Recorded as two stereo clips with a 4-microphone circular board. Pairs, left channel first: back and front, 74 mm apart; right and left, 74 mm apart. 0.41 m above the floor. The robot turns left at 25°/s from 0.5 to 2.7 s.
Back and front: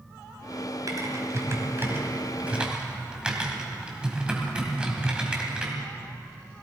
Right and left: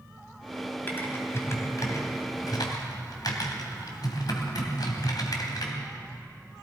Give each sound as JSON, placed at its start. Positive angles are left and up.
{"t": 0.9, "sound": "typing on a keyboard", "azimuth_deg": -30, "distance_m": 2.0}